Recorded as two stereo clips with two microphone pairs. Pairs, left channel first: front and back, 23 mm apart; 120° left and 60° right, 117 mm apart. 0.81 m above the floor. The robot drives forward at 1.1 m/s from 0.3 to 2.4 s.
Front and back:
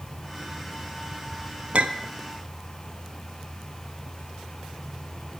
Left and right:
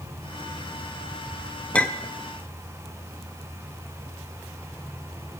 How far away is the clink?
About 0.6 m.